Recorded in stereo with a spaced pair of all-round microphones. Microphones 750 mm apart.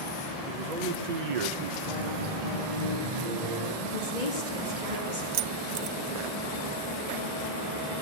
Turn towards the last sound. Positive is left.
turn(degrees=-75)  # may be behind; listen again after turning